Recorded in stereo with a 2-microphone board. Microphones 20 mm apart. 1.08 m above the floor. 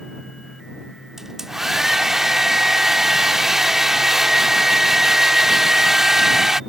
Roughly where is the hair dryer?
Right.